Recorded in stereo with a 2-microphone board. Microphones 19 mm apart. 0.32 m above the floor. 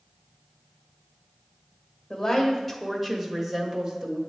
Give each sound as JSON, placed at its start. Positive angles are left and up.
{"t": 2.1, "sound": "a woman speaking", "side_deg": 30, "distance_m": 1.0}